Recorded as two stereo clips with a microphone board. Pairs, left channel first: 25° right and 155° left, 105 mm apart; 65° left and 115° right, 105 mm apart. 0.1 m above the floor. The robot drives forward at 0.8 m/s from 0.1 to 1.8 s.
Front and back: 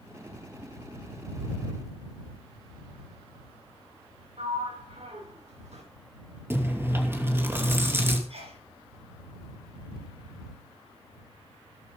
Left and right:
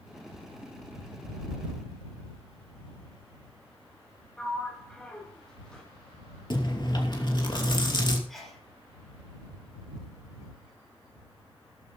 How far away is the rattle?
No rattle in this recording.